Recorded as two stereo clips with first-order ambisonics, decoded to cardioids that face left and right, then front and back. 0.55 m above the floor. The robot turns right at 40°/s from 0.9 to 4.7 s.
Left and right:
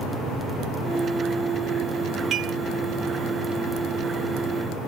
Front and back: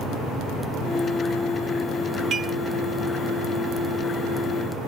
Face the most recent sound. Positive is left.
turn(degrees=-40)